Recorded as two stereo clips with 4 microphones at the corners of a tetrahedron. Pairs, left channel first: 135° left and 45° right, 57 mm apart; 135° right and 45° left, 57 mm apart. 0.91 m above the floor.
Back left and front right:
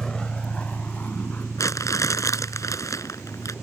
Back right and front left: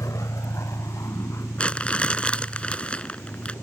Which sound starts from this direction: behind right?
A vehicle, at 0.0 s.